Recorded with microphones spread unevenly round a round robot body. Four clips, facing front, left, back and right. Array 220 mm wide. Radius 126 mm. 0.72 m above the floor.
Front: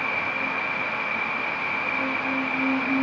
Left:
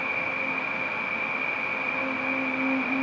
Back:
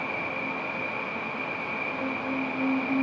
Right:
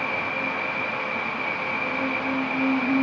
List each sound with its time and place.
0.0 s an insect: 70° right, 4 m